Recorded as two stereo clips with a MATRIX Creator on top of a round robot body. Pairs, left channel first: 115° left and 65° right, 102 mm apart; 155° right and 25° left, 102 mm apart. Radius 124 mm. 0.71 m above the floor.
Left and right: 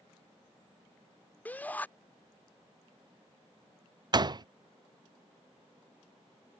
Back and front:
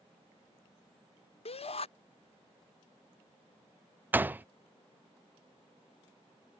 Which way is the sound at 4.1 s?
45° right.